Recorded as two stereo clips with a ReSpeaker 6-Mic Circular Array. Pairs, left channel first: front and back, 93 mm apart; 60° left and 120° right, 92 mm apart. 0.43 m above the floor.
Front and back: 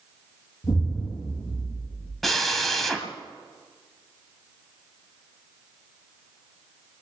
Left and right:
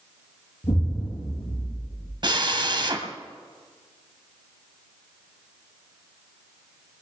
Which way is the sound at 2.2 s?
90° right.